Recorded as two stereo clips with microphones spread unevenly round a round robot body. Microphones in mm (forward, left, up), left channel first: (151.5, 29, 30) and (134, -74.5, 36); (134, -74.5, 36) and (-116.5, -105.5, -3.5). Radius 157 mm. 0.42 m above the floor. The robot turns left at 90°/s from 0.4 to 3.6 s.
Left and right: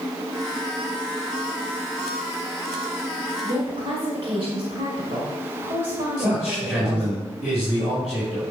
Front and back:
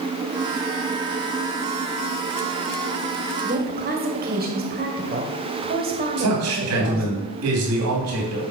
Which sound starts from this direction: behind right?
A woman speaking, at 3.4 s.